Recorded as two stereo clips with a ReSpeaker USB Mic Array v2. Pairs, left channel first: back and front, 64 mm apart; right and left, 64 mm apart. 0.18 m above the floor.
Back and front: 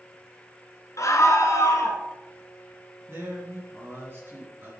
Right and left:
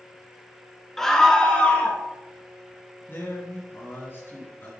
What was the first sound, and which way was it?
A scream, 175° right.